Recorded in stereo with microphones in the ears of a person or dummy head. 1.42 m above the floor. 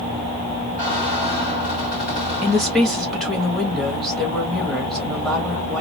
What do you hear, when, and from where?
0.8 s a squeak: 5° right (ahead or behind), 1.1 m
2.4 s a woman speaking: centre (ahead or behind), 1.0 m